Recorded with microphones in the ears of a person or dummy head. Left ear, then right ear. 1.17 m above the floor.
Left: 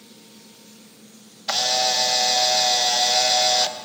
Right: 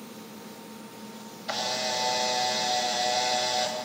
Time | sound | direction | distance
1.5 | a camera shutter | 25° left (ahead or behind) | 1.2 m